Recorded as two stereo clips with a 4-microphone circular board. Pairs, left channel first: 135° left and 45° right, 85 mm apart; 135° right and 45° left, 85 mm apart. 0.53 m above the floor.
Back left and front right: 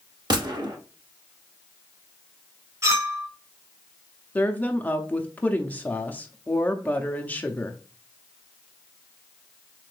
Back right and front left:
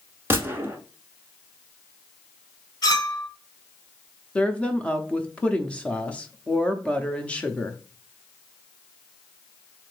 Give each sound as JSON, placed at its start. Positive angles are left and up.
{"t": 0.3, "sound": "a gunshot", "azimuth_deg": -15, "distance_m": 0.9}
{"t": 2.8, "sound": "a clink", "azimuth_deg": -100, "distance_m": 1.1}
{"t": 4.3, "sound": "a woman speaking", "azimuth_deg": 175, "distance_m": 0.6}